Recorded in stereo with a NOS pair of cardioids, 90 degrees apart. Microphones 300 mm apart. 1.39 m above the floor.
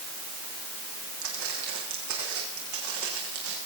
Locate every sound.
1.2 s footsteps: 70° right, 6.5 m; by 3.6 s 75° right, 7 m